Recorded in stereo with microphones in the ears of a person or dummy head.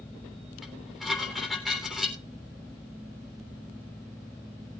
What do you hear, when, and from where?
0.6 s dishes clattering: 5° left (ahead or behind), 4 m